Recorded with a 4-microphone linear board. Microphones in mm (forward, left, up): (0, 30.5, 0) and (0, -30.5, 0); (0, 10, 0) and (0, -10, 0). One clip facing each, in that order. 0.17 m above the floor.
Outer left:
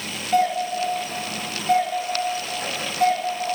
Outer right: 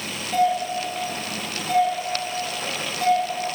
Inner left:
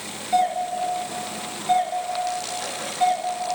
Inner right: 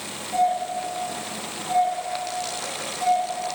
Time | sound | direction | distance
0.3 | a doorbell | 50° left (ahead or behind) | 3 m